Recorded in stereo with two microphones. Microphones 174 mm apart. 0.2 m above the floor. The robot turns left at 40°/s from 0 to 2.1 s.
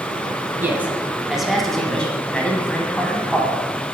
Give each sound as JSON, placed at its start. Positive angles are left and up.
{"t": 0.6, "sound": "a man speaking", "side_deg": -10, "distance_m": 1.0}